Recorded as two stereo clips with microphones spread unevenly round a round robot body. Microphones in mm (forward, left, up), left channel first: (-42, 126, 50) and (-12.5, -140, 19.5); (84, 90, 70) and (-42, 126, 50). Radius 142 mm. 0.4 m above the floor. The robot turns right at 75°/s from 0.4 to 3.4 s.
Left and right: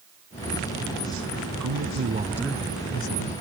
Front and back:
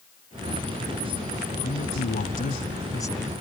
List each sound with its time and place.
1.6 s a man speaking: 55° right; by 3.4 s 80° left